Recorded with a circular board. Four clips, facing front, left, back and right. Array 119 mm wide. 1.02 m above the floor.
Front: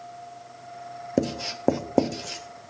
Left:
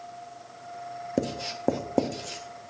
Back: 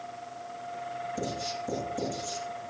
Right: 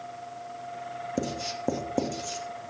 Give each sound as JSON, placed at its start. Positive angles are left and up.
{"t": 1.2, "sound": "writing", "azimuth_deg": 15, "distance_m": 1.1}